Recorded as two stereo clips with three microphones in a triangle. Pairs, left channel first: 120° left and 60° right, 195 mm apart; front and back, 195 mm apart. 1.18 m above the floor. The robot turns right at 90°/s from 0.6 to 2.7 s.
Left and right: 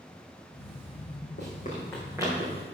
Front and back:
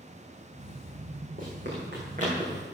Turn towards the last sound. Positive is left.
turn(degrees=-85)